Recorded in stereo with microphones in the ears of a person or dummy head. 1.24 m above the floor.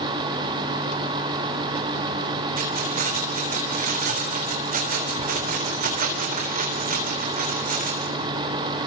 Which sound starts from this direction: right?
Keys jangling, at 2.6 s.